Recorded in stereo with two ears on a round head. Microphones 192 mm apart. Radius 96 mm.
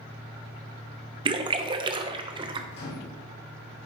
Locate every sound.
1.2 s a splash: 25° right (ahead or behind), 0.8 m
2.7 s a microwave: 55° left (ahead or behind), 4 m